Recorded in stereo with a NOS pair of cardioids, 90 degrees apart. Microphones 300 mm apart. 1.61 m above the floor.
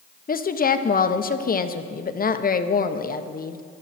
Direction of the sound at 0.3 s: 30° left.